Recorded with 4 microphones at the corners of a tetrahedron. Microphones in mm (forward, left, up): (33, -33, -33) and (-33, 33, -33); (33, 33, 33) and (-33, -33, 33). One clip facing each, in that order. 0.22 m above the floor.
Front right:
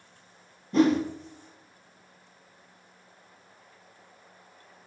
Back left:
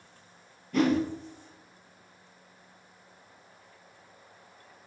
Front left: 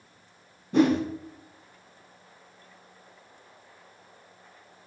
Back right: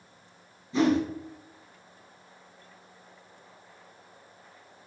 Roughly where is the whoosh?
Ahead.